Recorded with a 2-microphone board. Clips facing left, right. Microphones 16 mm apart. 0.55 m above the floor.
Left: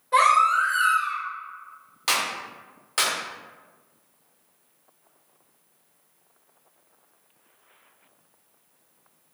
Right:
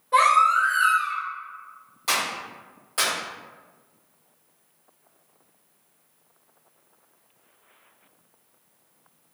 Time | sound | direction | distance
0.1 | a baby crying | 20° left (ahead or behind) | 1.3 m
2.1 | a clap | 50° left (ahead or behind) | 1.3 m